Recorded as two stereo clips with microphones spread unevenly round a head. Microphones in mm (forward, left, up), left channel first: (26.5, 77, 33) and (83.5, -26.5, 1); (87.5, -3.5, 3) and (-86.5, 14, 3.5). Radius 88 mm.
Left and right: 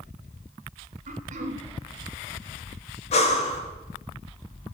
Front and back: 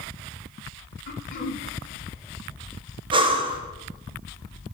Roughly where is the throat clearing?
Ahead right.